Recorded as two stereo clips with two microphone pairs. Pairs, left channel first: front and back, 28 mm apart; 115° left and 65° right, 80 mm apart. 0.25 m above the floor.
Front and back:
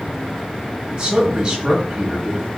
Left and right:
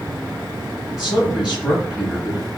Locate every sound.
0.9 s a man speaking: 140° right, 1.1 m